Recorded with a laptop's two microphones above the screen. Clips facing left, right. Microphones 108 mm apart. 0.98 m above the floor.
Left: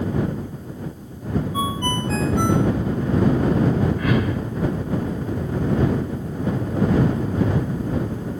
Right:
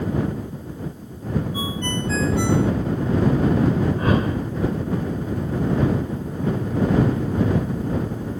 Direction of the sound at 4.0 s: 35° right (ahead or behind).